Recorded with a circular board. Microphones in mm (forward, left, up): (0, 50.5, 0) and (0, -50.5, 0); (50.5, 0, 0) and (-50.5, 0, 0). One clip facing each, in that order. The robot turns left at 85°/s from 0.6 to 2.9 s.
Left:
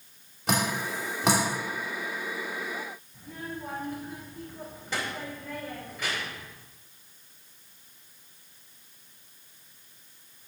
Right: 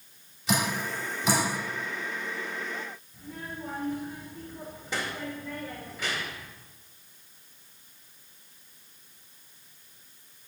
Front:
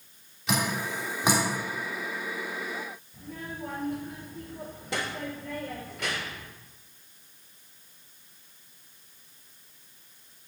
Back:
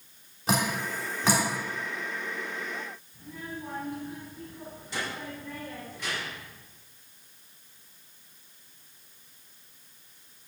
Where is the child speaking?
10° right, 2.5 m.